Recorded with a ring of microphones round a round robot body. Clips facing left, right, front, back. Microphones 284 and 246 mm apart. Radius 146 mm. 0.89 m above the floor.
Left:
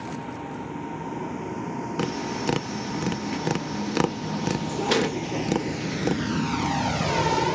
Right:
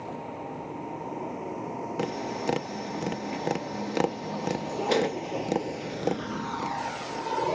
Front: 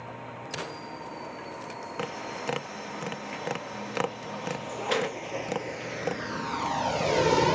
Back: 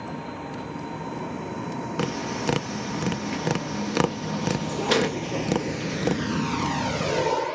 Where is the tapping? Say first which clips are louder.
Left 3 dB, back 7 dB; 155° left.